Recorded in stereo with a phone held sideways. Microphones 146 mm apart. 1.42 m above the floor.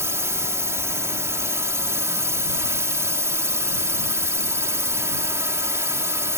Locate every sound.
0.0 s a drone: 20° right (ahead or behind)